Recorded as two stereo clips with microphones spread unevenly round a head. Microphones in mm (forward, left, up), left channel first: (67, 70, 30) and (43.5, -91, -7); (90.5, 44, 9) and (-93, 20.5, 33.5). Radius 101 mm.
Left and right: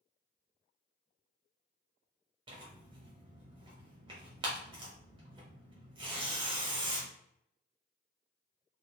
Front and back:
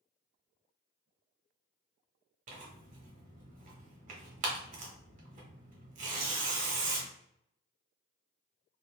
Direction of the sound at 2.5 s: 170° right.